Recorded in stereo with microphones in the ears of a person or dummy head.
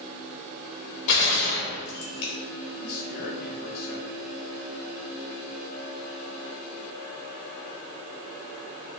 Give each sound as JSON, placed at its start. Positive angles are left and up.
{"t": 1.1, "sound": "a gunshot", "side_deg": 60, "distance_m": 4.0}
{"t": 2.8, "sound": "a man speaking", "side_deg": 55, "distance_m": 2.5}